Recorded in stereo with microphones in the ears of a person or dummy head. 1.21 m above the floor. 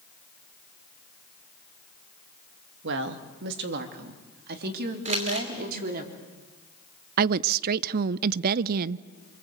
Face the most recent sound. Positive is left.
turn(degrees=-50)  # may be behind; listen again after turning